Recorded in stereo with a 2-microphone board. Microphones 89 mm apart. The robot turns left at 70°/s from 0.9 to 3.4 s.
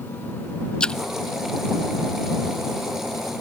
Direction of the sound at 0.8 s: 10° left (ahead or behind).